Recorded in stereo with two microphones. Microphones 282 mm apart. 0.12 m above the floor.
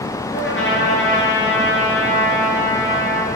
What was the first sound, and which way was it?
A trumpet, 45° left (ahead or behind).